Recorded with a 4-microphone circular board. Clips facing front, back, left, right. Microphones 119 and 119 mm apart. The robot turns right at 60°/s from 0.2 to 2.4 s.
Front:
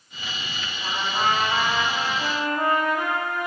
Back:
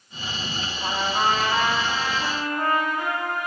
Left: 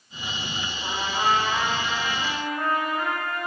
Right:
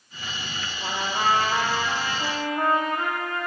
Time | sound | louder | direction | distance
0.8 | a trumpet | back 1 dB, right 1 dB | 125° right | 2.5 m